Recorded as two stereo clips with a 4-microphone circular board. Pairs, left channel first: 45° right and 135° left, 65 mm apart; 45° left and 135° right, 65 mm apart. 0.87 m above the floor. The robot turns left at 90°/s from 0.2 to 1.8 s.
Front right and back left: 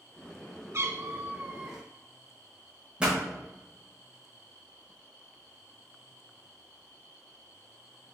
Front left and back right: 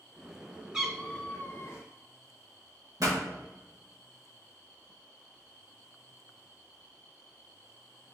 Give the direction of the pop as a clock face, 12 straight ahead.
5 o'clock.